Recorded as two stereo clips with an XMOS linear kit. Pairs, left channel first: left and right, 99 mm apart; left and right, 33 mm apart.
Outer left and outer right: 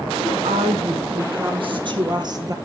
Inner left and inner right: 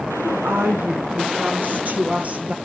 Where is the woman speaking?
65° right (ahead or behind), 5 m; by 2.6 s 35° right (ahead or behind), 2.5 m.